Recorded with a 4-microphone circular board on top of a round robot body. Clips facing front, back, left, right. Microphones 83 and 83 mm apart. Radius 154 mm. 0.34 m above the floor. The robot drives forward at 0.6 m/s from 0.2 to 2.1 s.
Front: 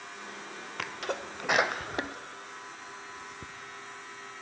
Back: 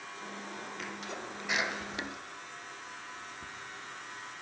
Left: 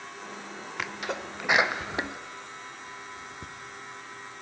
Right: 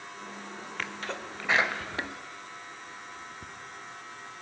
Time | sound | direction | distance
0.8 | a sneeze | 10° left | 1.7 m